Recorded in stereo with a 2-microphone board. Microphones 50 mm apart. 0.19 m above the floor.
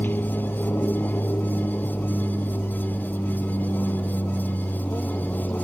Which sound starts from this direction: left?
An aircraft, at 0.0 s.